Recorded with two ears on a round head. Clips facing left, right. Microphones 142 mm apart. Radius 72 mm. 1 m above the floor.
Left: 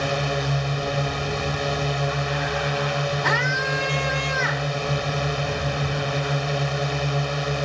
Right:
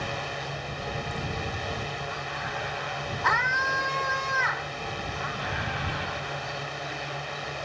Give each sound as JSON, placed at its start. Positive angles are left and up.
{"t": 0.0, "sound": "a drone", "side_deg": 60}
{"t": 3.2, "sound": "a scream", "side_deg": 30}